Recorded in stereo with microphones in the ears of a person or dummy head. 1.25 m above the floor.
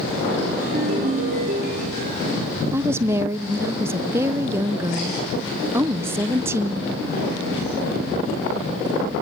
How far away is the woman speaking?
About 0.6 m.